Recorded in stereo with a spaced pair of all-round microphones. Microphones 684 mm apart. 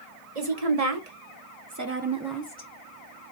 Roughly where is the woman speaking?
Right.